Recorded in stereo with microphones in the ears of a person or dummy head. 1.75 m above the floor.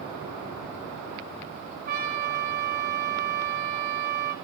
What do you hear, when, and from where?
1.9 s a trumpet: 45° right (ahead or behind), 2.5 m